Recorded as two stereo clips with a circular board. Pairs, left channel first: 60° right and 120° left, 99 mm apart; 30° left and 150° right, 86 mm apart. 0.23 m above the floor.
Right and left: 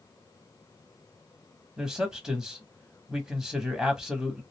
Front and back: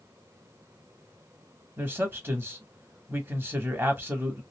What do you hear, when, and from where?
1.8 s a man speaking: 165° right, 1.0 m